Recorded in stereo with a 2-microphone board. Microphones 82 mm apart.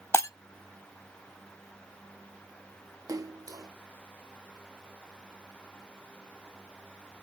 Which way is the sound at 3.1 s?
45° right (ahead or behind).